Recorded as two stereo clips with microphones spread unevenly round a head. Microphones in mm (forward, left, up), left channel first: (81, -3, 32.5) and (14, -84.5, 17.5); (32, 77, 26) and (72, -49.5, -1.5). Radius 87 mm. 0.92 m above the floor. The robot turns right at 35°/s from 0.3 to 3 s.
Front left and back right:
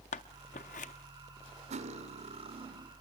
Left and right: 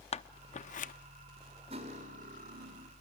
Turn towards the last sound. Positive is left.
turn(degrees=-85)